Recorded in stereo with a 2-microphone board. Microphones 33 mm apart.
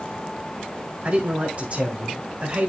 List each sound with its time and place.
1.0 s a man speaking: 45° right (ahead or behind), 1.8 m